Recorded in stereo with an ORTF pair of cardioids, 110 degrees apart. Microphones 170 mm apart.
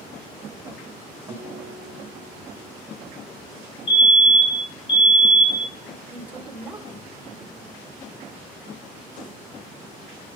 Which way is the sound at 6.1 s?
10° right.